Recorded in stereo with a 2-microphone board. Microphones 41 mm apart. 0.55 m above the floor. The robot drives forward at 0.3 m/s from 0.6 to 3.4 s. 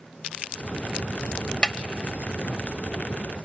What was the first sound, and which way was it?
A snare drum, 25° left (ahead or behind).